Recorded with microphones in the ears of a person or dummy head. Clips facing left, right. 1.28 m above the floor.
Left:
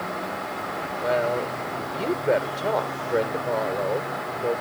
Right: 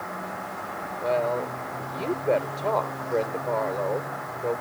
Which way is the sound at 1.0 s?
10° left (ahead or behind).